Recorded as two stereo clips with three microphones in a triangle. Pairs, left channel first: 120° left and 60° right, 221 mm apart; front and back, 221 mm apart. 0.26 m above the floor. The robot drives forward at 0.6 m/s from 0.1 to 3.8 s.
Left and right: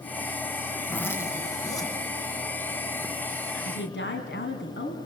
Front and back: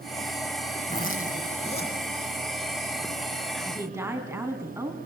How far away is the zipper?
About 2.5 m.